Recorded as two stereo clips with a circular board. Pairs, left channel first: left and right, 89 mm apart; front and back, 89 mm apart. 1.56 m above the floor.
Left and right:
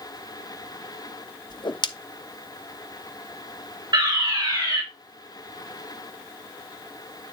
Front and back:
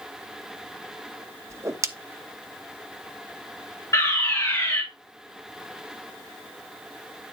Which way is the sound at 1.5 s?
125° left.